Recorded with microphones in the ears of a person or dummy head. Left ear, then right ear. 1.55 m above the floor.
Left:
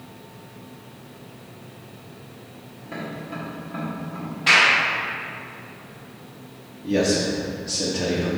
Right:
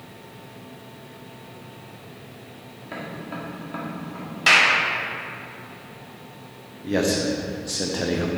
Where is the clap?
65° right (ahead or behind), 2.5 m.